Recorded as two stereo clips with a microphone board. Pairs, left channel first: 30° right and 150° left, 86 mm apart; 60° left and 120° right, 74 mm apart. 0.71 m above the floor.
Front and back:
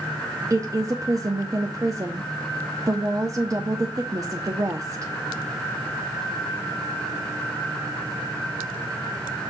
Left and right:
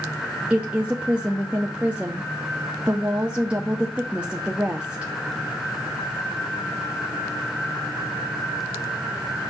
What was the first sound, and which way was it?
A woman speaking, 170° left.